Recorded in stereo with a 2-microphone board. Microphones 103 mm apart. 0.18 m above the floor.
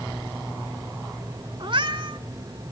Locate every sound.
1.6 s a cat meowing: 50° right (ahead or behind), 0.7 m